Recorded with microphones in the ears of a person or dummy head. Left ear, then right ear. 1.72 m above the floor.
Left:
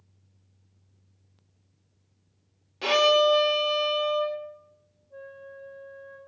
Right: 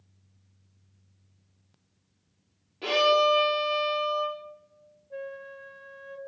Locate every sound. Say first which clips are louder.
2.8 s a violin: left 2 dB; 65° left (ahead or behind), 1.4 m
5.1 s a flute: right 5 dB; 45° right (ahead or behind), 0.6 m